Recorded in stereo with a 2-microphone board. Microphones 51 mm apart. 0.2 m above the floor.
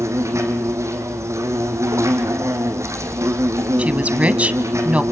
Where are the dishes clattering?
I don't hear dishes clattering.